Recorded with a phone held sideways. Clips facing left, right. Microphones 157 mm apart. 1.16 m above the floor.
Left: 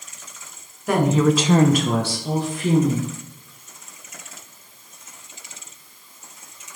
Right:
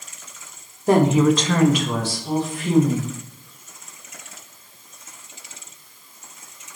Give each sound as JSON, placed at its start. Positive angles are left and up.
{"t": 0.9, "sound": "a woman speaking", "side_deg": -35, "distance_m": 0.7}